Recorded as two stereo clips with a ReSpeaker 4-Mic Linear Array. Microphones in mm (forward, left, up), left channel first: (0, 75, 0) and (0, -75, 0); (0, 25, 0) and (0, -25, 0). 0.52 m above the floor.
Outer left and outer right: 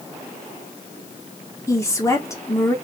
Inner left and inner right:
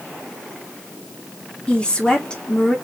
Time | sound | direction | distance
1.7 | a woman speaking | 20° left (ahead or behind) | 1.1 m